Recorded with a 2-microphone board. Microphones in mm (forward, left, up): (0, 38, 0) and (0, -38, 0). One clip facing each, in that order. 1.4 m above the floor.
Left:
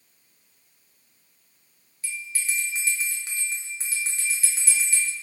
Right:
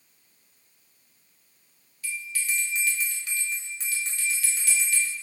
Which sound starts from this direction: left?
A bell, at 2.0 s.